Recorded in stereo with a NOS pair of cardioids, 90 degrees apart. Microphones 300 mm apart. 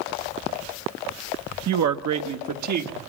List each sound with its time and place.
1.7 s a woman speaking: 60° right, 1.1 m; by 3.0 s 65° right, 1.9 m